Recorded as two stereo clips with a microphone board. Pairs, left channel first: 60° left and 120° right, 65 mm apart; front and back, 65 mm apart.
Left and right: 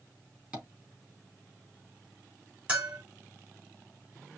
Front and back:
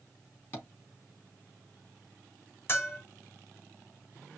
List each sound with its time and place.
0.5 s tapping: 45° right, 3.5 m
2.7 s a bell: 50° right, 2 m